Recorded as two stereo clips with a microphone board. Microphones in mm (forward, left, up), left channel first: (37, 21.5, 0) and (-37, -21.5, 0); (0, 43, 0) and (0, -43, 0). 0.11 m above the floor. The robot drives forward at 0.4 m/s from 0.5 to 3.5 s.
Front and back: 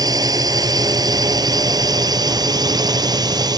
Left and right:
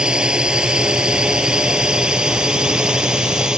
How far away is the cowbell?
I don't hear a cowbell.